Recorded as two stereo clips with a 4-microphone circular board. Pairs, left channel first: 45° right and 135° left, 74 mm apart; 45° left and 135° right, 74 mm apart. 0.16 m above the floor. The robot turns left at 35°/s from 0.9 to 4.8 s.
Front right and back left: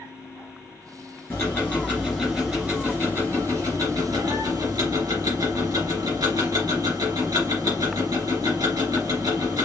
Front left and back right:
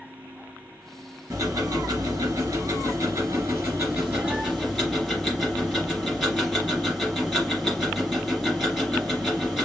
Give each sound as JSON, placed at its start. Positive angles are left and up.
{"t": 1.3, "sound": "ticking", "azimuth_deg": -100, "distance_m": 2.5}